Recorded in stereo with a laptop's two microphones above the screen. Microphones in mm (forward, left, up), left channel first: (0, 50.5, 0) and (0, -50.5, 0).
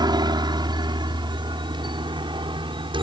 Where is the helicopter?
40° right (ahead or behind); by 3.0 s 50° right (ahead or behind).